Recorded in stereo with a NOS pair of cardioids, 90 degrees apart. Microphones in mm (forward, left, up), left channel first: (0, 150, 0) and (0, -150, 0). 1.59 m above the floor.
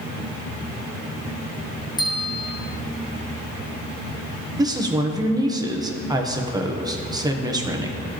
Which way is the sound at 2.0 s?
15° left.